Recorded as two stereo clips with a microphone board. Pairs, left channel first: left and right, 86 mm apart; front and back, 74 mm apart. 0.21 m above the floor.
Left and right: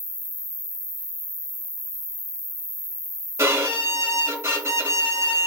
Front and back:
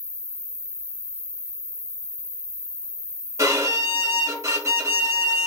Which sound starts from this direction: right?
An insect, at 0.0 s.